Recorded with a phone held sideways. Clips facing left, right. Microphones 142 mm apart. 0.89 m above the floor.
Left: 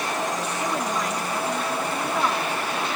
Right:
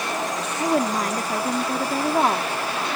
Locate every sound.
0.6 s a woman speaking: 50° right (ahead or behind)